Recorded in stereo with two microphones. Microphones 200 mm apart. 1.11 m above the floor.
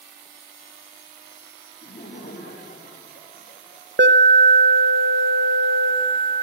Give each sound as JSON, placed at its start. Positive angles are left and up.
{"t": 1.8, "sound": "laughter", "side_deg": 50, "distance_m": 2.0}
{"t": 4.0, "sound": "an alarm", "side_deg": -60, "distance_m": 0.7}